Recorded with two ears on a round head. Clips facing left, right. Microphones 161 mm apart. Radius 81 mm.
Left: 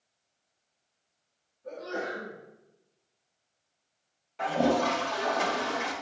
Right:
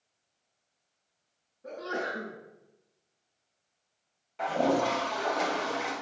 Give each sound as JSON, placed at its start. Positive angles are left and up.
{"t": 1.6, "sound": "a sneeze", "side_deg": -80, "distance_m": 5.5}
{"t": 4.4, "sound": "a toilet flushing", "side_deg": 0, "distance_m": 2.5}